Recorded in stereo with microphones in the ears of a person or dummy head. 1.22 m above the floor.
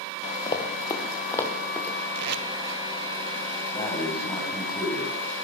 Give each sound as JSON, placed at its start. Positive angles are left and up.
{"t": 0.5, "sound": "running footsteps", "side_deg": 25, "distance_m": 4.5}
{"t": 2.1, "sound": "tape being pulled", "side_deg": -65, "distance_m": 2.0}
{"t": 3.7, "sound": "breathing", "side_deg": 25, "distance_m": 6.5}